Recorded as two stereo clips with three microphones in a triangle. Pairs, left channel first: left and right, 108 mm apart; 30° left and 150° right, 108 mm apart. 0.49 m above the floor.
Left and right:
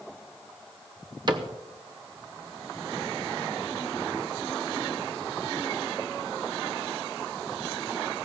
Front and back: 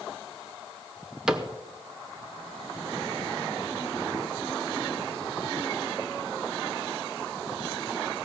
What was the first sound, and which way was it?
A cupboard door, 70° right.